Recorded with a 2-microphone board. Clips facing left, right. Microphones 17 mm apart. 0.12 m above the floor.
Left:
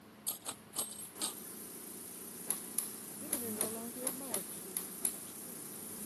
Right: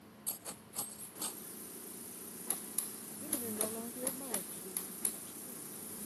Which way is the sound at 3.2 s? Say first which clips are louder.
Right 1 dB; 10° right (ahead or behind).